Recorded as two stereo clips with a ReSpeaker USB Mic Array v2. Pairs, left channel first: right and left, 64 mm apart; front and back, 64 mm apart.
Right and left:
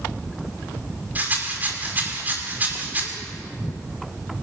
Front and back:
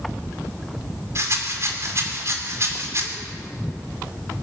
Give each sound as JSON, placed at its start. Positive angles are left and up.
{"t": 1.1, "sound": "a rattle", "azimuth_deg": 150, "distance_m": 2.5}